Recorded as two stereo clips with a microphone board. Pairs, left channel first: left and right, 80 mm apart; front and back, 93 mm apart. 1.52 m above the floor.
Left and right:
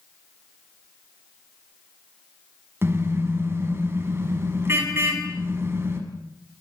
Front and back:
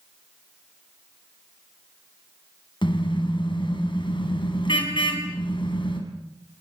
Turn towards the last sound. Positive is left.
turn(degrees=-30)